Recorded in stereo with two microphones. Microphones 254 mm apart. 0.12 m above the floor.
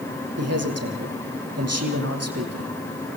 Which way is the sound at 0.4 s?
75° right (ahead or behind).